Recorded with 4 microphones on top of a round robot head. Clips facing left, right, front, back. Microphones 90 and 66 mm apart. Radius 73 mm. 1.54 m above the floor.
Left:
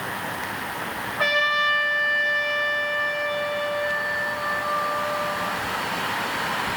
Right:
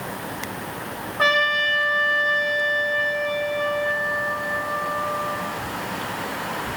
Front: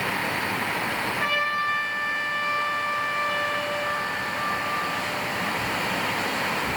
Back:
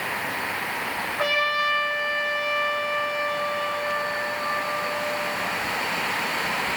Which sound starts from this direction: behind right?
A trumpet, at 1.2 s.